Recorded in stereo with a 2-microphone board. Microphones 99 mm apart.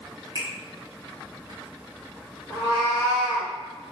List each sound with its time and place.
0.3 s a finger snap: 45° left (ahead or behind), 1.9 m
2.5 s a cat meowing: 40° left (ahead or behind), 1.5 m